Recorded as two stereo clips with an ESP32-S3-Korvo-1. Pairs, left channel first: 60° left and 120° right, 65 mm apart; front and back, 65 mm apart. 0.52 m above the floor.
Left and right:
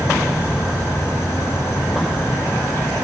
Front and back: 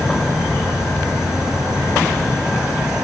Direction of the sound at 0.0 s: 105° left.